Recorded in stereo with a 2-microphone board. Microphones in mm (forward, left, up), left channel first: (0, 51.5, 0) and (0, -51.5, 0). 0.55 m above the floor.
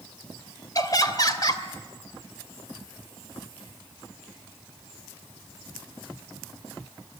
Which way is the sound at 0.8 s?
40° left (ahead or behind).